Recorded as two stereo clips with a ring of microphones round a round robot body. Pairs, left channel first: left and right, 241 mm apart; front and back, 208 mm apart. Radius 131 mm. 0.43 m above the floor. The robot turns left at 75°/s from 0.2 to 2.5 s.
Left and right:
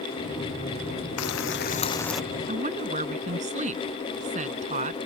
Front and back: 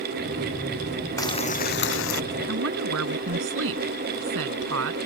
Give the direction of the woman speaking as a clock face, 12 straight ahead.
5 o'clock.